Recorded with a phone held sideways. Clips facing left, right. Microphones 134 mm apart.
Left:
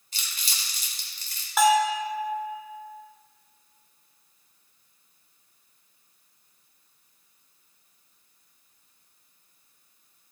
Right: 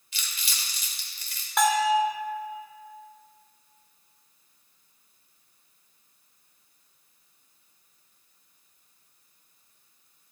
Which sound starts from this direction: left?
Crumpling, at 0.1 s.